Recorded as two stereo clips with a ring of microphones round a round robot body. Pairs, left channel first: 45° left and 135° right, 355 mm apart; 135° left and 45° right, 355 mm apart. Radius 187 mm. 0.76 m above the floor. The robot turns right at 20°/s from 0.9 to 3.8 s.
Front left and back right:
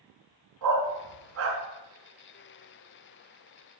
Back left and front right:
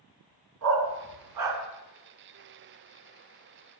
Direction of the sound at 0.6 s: 90° right.